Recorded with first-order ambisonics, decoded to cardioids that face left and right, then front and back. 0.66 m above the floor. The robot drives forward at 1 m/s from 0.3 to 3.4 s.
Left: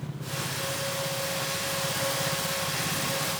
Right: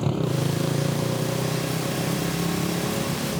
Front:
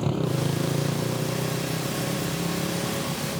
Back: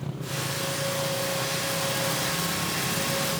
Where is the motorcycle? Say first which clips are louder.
Right 8 dB, front 5 dB; 55° right; by 3.4 s 80° right.